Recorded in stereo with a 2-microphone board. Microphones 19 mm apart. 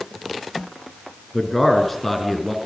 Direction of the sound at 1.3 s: 10° left (ahead or behind).